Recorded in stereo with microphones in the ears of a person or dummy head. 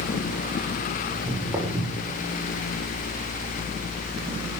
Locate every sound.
1.1 s footsteps: 5° right (ahead or behind), 5.5 m; by 2.2 s 15° right (ahead or behind), 5.5 m